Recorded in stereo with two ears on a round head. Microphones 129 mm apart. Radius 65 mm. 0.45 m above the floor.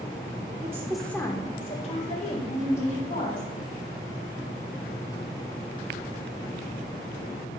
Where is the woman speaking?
25° right (ahead or behind), 0.8 m; by 3.5 s 60° left (ahead or behind), 3 m.